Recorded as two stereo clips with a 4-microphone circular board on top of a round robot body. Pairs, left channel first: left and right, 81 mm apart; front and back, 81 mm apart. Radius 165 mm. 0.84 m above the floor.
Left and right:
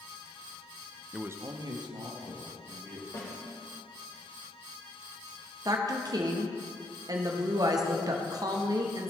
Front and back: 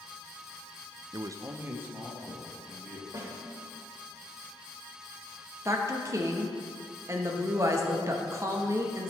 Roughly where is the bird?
I don't hear a bird.